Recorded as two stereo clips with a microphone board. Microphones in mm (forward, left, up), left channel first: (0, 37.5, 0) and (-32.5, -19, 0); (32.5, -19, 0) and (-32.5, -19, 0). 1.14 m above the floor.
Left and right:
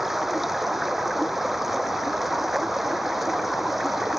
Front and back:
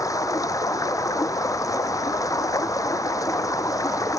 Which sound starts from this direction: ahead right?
Running water, at 0.0 s.